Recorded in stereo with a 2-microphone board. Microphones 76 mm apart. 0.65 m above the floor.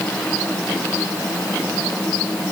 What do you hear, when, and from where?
Only background noise.